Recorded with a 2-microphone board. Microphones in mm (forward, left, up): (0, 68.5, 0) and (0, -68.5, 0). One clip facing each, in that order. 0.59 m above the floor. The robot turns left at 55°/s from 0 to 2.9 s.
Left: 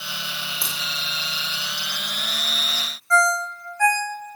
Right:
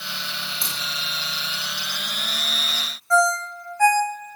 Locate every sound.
0.6 s a crack: 25° left (ahead or behind), 1.2 m; by 0.8 s 30° left (ahead or behind), 1.2 m
3.1 s a ringtone: 20° right (ahead or behind), 0.8 m